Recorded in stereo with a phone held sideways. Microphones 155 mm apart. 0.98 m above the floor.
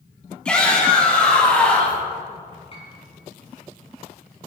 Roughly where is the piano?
Left.